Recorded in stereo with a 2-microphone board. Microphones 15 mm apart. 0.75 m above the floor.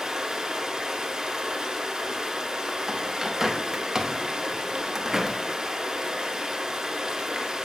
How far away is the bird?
About 0.7 m.